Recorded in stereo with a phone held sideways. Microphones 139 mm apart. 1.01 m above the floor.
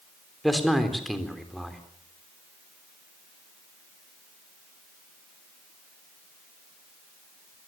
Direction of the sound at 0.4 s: Centre (ahead or behind).